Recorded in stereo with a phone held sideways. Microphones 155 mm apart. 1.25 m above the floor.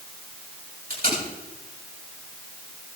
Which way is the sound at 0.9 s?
70° right (ahead or behind).